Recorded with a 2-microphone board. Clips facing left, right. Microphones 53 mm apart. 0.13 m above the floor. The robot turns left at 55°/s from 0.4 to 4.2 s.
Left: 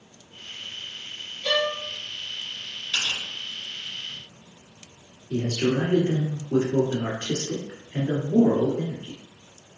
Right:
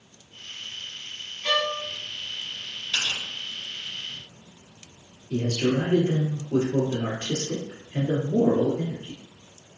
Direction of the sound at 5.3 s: 40° left (ahead or behind).